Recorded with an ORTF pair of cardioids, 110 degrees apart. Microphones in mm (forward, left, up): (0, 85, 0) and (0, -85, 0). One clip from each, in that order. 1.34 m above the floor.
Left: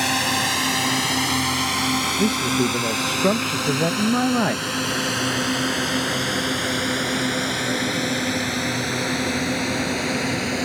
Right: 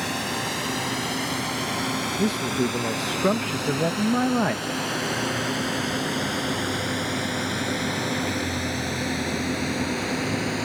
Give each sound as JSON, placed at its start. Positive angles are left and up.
{"t": 0.0, "sound": "a drone", "azimuth_deg": 50}
{"t": 2.2, "sound": "a man speaking", "azimuth_deg": 10}